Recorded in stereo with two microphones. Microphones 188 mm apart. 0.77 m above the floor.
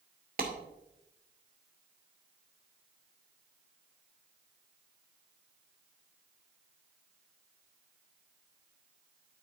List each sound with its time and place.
0.4 s a clap: 50° right (ahead or behind), 2 m